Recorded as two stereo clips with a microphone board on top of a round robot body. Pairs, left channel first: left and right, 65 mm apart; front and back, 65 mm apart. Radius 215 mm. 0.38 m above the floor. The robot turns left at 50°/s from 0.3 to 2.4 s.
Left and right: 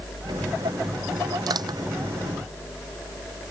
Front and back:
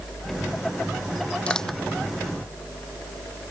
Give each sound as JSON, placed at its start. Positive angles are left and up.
{"t": 1.5, "sound": "crushing", "azimuth_deg": -75}